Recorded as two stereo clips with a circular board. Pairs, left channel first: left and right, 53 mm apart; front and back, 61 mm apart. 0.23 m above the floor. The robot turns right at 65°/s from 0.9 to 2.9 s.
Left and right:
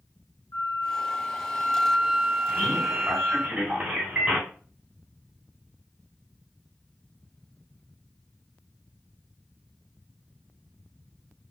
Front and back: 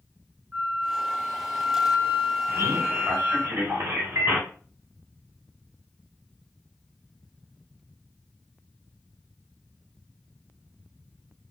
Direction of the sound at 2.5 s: Straight behind.